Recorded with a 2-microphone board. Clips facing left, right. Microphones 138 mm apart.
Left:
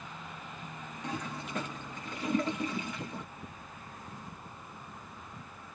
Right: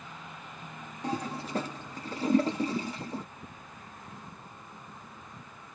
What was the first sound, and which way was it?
A toilet flushing, 35° right (ahead or behind).